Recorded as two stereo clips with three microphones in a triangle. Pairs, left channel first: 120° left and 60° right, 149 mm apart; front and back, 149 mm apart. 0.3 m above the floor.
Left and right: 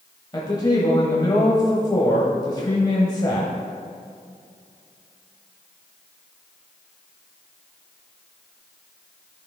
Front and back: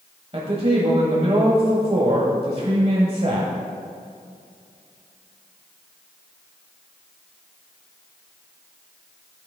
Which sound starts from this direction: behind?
A man speaking, at 0.3 s.